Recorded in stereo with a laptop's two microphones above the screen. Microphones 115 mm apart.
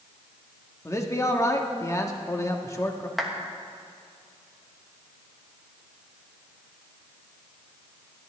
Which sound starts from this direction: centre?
A clap, at 3.2 s.